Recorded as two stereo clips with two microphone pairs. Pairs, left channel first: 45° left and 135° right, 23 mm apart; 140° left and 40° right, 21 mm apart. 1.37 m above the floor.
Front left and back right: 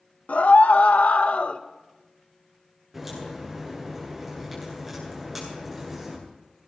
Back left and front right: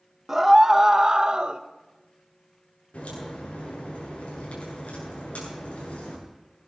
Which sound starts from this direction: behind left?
A crack, at 2.9 s.